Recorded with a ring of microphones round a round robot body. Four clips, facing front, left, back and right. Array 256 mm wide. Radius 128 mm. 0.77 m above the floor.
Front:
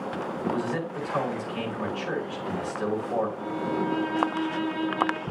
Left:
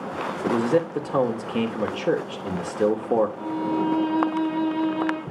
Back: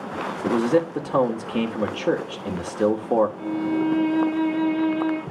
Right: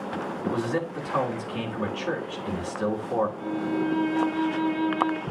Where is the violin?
115° left, 2.5 m.